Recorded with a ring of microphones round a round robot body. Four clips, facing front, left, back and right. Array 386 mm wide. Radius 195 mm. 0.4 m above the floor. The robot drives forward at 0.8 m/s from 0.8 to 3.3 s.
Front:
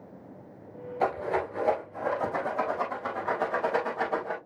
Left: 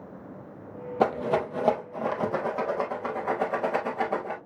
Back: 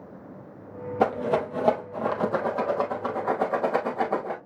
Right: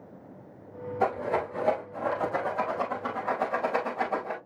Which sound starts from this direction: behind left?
A rattle, at 1.0 s.